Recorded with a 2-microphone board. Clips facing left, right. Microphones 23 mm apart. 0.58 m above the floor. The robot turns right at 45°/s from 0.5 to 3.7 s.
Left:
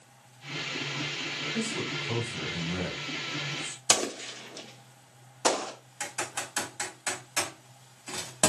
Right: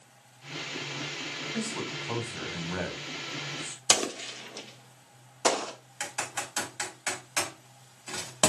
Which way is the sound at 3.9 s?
15° right (ahead or behind).